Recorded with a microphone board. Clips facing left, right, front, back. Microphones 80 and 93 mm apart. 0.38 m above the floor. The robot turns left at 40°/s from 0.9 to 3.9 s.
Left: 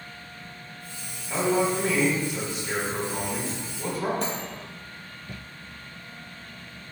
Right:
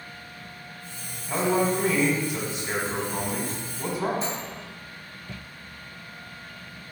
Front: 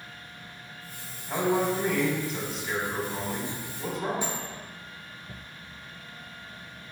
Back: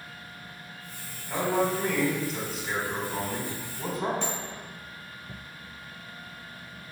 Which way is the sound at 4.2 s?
80° left.